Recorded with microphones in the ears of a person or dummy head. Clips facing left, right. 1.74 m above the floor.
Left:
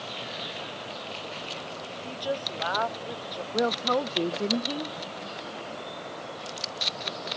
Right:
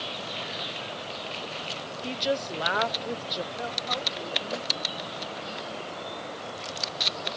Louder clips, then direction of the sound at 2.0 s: Right 3 dB; 30° right (ahead or behind).